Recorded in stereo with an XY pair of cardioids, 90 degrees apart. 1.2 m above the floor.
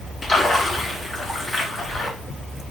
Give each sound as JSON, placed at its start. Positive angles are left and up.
{"t": 0.2, "sound": "a splash", "azimuth_deg": 45, "distance_m": 2.5}